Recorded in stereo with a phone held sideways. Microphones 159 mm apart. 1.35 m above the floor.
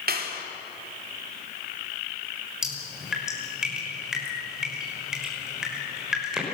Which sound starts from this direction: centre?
Dripping, at 2.6 s.